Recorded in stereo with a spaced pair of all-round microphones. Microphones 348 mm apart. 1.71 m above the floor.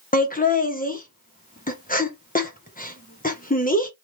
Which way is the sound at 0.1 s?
25° left (ahead or behind).